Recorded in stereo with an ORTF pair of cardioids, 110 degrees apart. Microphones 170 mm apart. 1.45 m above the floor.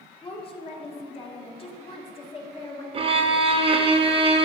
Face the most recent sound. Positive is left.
turn(degrees=-30)